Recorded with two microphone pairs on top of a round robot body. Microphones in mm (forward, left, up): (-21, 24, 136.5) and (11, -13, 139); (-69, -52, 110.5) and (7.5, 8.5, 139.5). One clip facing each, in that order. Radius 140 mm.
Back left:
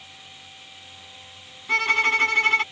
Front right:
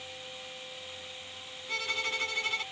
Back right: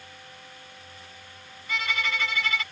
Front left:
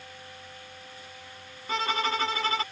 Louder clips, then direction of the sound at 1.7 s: Back left 13 dB, front left 3 dB; 95° left.